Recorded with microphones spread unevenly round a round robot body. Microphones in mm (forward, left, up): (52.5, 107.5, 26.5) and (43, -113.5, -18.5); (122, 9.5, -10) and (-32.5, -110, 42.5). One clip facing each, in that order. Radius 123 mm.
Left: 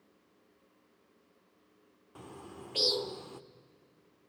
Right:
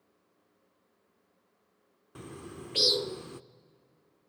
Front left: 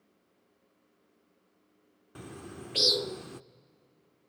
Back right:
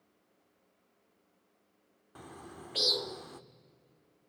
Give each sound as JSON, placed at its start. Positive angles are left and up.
{"t": 2.1, "sound": "a bird", "azimuth_deg": -25, "distance_m": 0.6}